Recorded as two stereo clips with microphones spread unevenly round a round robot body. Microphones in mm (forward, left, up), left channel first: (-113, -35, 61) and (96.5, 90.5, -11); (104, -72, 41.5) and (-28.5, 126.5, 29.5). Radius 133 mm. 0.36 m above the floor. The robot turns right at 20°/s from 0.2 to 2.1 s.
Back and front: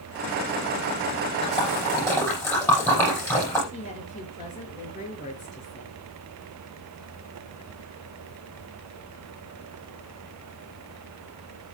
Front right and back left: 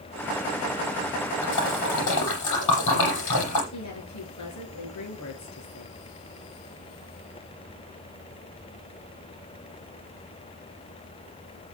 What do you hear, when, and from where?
1.4 s a splash: 80° right, 8.5 m; by 3.6 s 70° right, 8.5 m
3.7 s a woman speaking: 85° right, 6 m